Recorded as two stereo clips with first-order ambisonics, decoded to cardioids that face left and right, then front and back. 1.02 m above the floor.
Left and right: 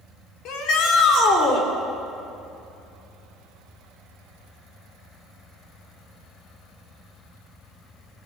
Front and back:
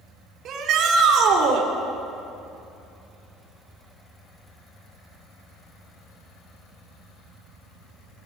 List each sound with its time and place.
0.5 s a shout: 130° left, 3.5 m; by 1.7 s 140° left, 4 m